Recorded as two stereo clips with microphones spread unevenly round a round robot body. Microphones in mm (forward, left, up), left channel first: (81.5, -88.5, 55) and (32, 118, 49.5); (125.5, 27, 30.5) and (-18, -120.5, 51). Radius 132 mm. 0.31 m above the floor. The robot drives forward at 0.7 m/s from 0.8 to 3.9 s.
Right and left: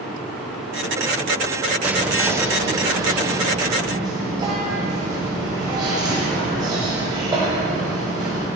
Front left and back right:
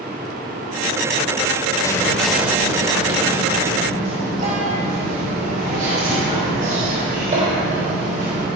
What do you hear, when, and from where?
1.8 s whispering: 35° left, 0.9 m; by 8.5 s 170° left, 1.5 m